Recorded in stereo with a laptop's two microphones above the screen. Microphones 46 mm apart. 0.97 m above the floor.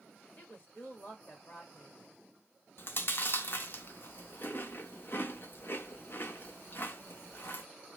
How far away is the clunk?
No clunk in this recording.